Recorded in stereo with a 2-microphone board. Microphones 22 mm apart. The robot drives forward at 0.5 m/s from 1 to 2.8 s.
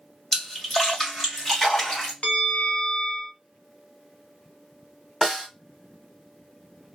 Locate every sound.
0.3 s a splash: 10° left (ahead or behind), 1.9 m; by 2.1 s 15° left (ahead or behind), 1.6 m
2.2 s a bell: 60° left (ahead or behind), 0.9 m; by 3.3 s 65° left (ahead or behind), 0.8 m
5.2 s a snare drum: 20° right (ahead or behind), 1.6 m